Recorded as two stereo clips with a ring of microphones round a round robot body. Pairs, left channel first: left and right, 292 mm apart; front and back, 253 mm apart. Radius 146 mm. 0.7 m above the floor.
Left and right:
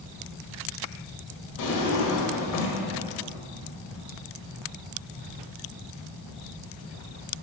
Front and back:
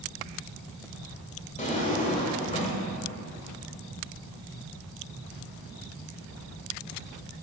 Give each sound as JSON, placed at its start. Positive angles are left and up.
{"t": 1.6, "sound": "a drawer", "azimuth_deg": 60, "distance_m": 1.5}